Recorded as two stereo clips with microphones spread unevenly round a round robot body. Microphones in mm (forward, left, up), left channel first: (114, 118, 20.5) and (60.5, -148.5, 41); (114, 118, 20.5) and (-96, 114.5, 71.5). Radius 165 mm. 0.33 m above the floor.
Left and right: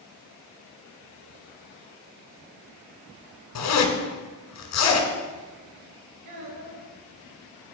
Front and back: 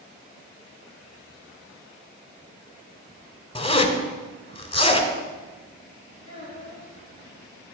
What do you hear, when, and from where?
3.5 s a zipper: 65° left, 1.8 m
6.2 s a child speaking: 110° right, 3.5 m